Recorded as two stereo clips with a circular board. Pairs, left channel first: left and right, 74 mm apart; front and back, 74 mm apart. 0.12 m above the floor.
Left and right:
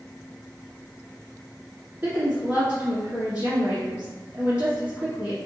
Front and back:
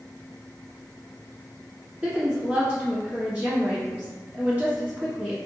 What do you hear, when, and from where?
2.0 s a woman speaking: 135° right, 1.4 m